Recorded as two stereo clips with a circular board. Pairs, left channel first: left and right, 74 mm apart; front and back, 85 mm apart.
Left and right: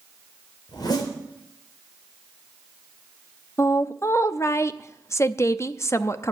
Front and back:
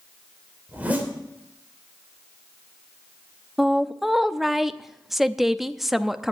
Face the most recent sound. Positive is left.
turn(degrees=95)